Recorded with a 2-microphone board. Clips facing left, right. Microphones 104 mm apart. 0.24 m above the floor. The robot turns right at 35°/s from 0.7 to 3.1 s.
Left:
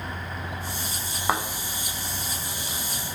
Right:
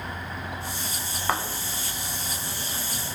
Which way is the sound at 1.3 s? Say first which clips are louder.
Left 2 dB; 10° left (ahead or behind).